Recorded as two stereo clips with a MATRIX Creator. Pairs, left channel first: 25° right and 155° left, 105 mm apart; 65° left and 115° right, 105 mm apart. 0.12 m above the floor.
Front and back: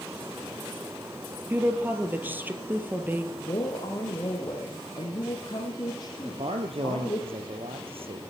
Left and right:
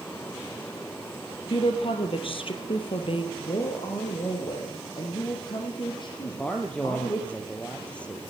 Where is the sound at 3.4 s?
25° left, 4.5 m.